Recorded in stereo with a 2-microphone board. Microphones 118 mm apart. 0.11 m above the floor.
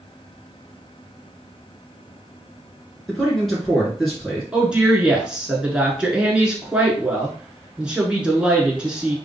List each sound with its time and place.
3.1 s a man speaking: centre (ahead or behind), 1.5 m
4.5 s a woman speaking: 10° right (ahead or behind), 1.3 m